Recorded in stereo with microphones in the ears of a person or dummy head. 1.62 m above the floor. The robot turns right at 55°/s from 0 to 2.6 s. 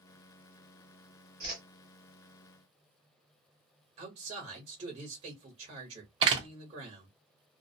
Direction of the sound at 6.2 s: 30° right (ahead or behind).